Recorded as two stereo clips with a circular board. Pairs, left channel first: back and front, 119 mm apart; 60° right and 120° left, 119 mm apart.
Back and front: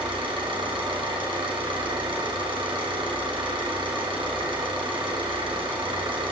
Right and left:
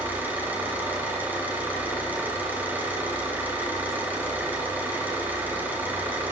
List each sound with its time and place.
0.0 s an engine running: 45° left, 3 m